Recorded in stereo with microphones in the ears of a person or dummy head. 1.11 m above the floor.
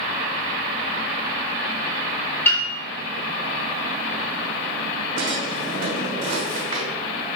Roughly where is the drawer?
Right.